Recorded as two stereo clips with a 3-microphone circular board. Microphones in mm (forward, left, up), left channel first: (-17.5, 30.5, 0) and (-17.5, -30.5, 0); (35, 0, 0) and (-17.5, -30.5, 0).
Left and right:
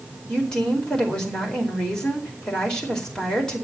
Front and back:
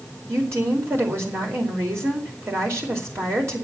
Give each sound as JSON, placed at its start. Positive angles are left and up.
{"t": 0.3, "sound": "a woman speaking", "azimuth_deg": 165, "distance_m": 4.5}